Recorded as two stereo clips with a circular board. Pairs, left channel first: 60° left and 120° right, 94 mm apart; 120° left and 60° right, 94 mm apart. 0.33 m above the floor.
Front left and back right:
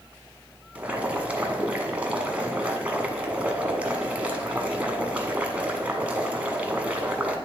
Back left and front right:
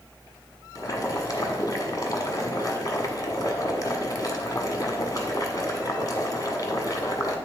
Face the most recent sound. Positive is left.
turn(degrees=165)